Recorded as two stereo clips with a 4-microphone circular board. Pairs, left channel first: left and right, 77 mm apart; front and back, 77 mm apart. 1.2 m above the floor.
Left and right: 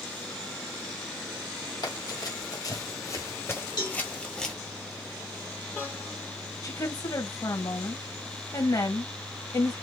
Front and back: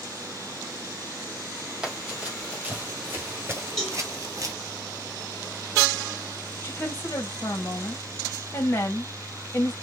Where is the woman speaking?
55° left, 2 m.